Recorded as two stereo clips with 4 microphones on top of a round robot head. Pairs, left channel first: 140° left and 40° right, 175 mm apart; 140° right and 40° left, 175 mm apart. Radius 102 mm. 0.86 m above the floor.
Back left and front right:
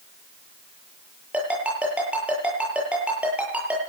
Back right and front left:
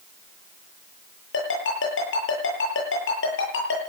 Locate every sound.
1.3 s a ringtone: 125° right, 9.5 m